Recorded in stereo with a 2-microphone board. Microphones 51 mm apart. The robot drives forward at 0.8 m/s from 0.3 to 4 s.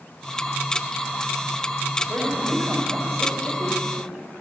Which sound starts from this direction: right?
A woman speaking, at 2.1 s.